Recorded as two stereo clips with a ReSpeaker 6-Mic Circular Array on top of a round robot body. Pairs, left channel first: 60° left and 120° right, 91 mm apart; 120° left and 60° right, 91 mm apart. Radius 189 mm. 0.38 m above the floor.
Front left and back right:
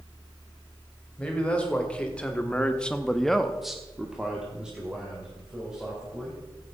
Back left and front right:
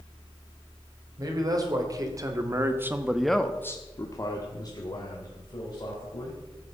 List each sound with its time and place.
1.2 s a man speaking: 15° right, 3 m; by 6.4 s 160° left, 4.5 m